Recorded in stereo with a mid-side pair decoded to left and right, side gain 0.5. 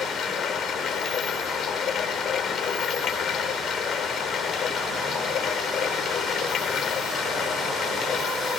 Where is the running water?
55° left.